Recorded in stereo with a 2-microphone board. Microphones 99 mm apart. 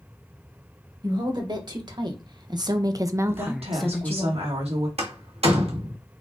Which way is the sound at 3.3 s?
75° right (ahead or behind).